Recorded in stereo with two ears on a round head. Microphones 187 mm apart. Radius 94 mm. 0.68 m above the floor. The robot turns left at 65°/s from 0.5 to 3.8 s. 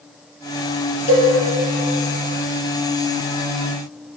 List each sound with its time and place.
1.1 s a cowbell: 30° left (ahead or behind), 2.5 m; by 1.3 s 20° left (ahead or behind), 2.5 m